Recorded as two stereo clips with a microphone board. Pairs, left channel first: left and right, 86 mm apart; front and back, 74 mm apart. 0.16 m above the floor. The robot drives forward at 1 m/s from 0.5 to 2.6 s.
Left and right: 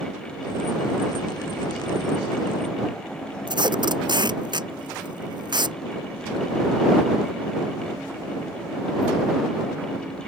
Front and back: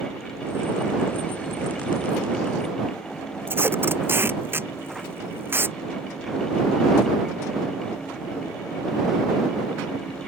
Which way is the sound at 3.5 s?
120° right.